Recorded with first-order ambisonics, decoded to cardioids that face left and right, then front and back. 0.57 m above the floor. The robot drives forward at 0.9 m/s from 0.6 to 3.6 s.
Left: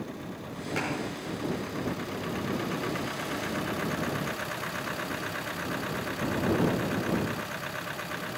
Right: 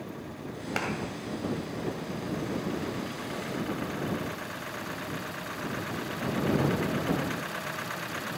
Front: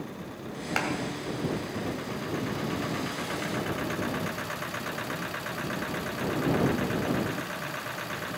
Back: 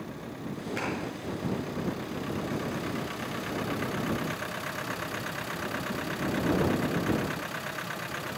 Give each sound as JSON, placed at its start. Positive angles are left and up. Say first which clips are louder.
{"t": 0.8, "sound": "a clap", "louder": "even, front 4 dB", "azimuth_deg": -25, "distance_m": 2.0}